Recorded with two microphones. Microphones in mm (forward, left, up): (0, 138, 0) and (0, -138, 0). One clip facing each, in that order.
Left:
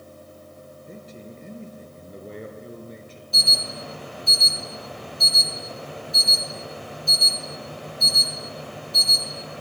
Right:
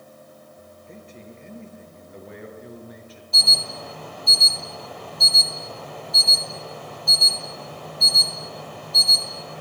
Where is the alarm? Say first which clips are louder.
Left 1 dB; 30° left (ahead or behind), 9.5 m.